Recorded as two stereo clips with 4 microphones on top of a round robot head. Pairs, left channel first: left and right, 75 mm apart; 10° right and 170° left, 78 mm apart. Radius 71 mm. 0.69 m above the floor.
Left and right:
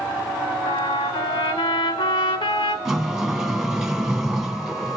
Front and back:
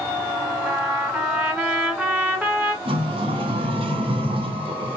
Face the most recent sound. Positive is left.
turn(degrees=-170)